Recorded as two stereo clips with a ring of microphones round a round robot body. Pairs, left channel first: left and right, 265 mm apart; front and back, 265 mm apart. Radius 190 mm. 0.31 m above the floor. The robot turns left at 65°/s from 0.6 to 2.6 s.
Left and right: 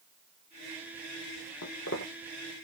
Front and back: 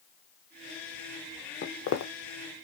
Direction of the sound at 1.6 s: 55° left.